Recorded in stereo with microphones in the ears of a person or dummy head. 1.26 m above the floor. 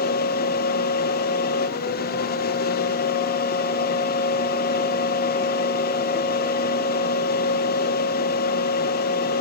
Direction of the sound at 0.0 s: 50° left (ahead or behind).